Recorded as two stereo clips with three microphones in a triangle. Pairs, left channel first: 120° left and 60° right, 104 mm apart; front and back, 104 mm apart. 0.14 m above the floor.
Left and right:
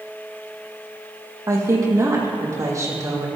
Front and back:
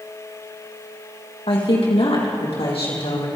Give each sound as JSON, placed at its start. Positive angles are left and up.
{"t": 1.5, "sound": "a woman speaking", "azimuth_deg": -5, "distance_m": 5.0}